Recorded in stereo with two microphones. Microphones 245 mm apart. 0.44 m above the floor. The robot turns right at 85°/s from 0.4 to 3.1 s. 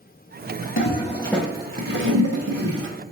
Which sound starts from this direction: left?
A toilet flushing, at 0.8 s.